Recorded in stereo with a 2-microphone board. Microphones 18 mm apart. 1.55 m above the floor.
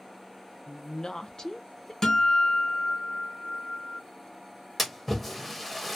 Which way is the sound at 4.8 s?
5° right (ahead or behind).